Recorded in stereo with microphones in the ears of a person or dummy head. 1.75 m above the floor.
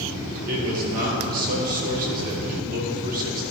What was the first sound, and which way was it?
A man speaking, 50° right (ahead or behind).